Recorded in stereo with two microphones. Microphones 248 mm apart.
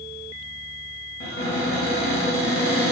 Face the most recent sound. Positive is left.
turn(degrees=50)  # may be behind; listen again after turning